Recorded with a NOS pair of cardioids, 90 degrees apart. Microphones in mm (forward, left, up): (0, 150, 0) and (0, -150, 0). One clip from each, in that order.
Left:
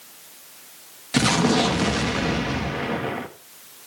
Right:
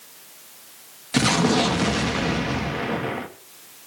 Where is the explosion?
Straight ahead, 1.4 m.